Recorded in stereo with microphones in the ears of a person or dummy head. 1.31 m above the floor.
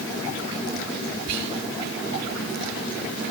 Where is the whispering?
60° right (ahead or behind), 3.5 m.